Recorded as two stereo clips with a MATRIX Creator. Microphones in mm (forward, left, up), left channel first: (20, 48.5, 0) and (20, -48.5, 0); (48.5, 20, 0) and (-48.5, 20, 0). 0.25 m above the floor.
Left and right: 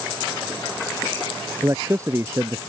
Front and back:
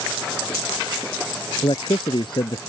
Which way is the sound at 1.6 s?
35° right.